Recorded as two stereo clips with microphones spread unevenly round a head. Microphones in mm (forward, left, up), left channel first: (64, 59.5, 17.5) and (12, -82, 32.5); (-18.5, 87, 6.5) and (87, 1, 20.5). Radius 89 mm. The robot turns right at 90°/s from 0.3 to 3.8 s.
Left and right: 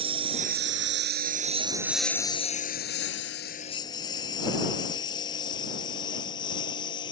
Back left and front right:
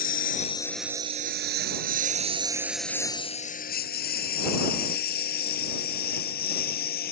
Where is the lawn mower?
170° right; by 7.1 s 135° left.